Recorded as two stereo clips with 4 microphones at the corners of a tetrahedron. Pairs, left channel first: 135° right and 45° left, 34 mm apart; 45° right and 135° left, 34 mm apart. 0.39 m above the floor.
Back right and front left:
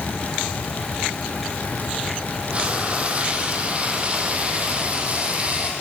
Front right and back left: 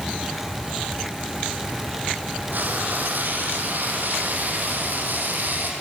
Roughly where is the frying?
Left.